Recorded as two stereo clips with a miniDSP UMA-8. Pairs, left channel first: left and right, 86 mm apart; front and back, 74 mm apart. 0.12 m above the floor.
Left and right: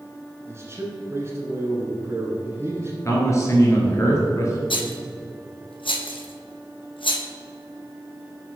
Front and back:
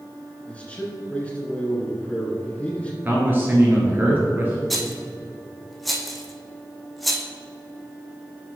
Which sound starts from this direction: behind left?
A man speaking, at 3.0 s.